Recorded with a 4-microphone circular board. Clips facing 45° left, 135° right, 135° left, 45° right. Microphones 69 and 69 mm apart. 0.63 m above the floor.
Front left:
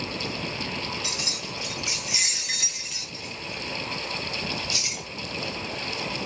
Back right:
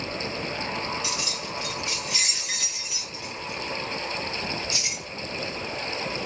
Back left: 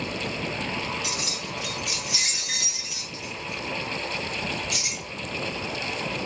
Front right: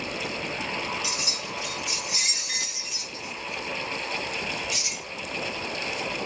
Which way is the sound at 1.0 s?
100° left.